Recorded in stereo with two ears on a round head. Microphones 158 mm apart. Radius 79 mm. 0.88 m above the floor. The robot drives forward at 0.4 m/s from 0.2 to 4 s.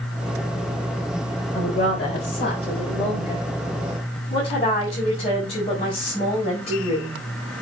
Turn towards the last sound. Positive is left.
turn(degrees=35)  # may be behind; listen again after turning